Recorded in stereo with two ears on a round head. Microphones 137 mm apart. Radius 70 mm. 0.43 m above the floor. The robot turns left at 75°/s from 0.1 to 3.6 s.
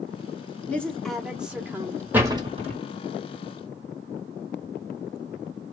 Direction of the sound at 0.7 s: 10° left (ahead or behind).